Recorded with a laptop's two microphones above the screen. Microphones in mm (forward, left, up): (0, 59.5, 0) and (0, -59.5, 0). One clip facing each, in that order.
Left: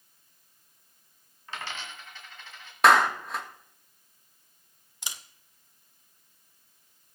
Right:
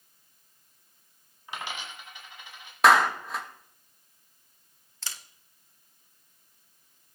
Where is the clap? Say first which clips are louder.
Even; centre (ahead or behind), 1.9 m.